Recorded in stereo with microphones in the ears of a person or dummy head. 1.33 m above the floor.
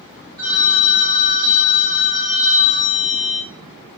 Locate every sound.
0.4 s a phone ringing: 25° right (ahead or behind), 1.2 m